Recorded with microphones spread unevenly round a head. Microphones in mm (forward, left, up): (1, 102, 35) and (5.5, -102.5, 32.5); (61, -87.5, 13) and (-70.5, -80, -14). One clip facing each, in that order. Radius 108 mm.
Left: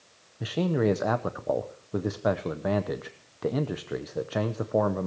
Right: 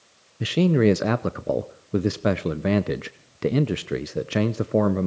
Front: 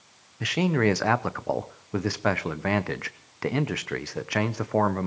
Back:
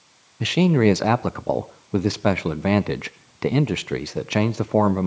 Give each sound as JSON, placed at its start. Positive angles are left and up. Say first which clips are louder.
{"t": 0.4, "sound": "a man speaking", "louder": "right 6 dB, back 6 dB", "azimuth_deg": -120, "distance_m": 0.7}